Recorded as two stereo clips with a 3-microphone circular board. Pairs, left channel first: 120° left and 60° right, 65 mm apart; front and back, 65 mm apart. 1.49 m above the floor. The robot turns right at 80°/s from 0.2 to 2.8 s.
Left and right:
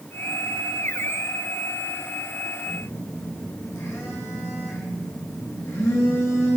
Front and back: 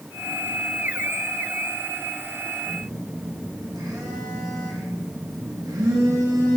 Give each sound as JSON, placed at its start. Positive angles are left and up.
{"t": 2.6, "sound": "a phone buzzing", "azimuth_deg": 155, "distance_m": 2.0}